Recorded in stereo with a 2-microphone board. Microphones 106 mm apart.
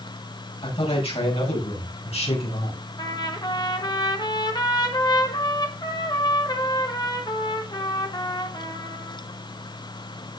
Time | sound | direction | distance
0.6 | a man speaking | 65° left (ahead or behind) | 8 m
3.0 | a trumpet | 40° left (ahead or behind) | 1.9 m